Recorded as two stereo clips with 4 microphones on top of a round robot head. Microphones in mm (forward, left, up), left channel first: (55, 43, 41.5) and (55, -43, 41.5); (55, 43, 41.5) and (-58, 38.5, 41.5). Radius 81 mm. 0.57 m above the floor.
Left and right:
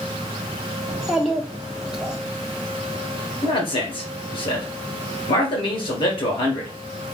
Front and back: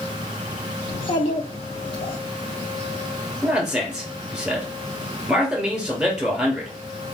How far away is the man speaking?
About 2 m.